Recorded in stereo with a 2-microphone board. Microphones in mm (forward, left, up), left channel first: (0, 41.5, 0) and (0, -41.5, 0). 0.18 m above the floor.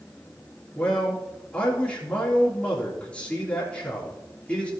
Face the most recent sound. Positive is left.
turn(degrees=15)  # may be behind; listen again after turning